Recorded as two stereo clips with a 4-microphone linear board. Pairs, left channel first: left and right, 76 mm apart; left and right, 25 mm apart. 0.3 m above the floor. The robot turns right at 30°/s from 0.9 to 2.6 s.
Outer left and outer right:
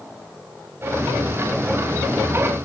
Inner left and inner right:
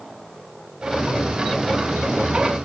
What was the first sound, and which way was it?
Only background noise.